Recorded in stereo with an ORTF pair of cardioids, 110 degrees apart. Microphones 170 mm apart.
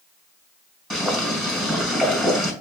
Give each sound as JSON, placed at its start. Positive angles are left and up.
{"t": 0.9, "sound": "boiling", "azimuth_deg": 0, "distance_m": 5.0}